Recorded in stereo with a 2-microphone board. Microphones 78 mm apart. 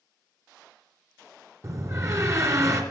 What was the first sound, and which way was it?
A door slam, 45° right (ahead or behind).